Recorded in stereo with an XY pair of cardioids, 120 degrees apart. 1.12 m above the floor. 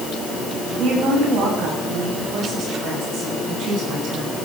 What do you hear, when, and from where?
0.8 s a woman speaking: 65° right, 10 m